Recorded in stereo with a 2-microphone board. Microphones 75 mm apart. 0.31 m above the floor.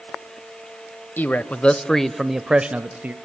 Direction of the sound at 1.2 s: 25° left (ahead or behind).